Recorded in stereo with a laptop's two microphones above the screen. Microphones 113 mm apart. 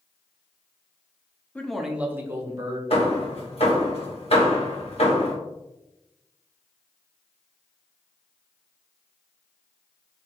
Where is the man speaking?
10° left (ahead or behind), 0.5 m; by 2.8 s 30° right (ahead or behind), 1.1 m.